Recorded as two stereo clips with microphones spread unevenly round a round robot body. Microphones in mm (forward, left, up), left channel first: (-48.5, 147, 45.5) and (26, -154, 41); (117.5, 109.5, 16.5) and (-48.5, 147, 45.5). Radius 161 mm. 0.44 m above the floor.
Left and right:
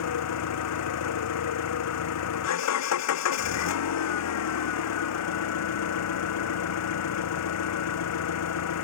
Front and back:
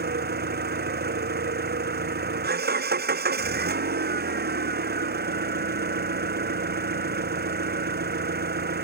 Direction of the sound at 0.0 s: 145° left.